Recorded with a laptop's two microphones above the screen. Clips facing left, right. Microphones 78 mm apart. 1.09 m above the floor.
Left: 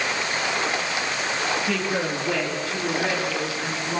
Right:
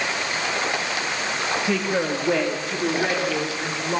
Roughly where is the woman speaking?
Centre.